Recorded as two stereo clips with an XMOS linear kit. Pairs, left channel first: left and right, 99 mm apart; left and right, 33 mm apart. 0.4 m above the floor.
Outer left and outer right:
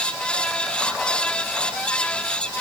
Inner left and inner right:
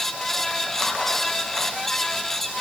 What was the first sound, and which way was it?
Only background noise.